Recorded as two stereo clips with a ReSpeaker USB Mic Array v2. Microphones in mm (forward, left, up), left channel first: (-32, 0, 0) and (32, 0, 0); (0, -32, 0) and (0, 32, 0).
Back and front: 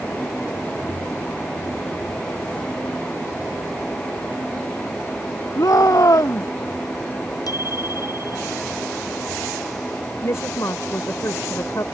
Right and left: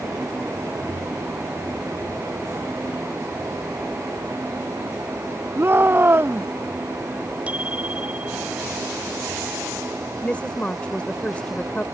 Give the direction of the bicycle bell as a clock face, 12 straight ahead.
7 o'clock.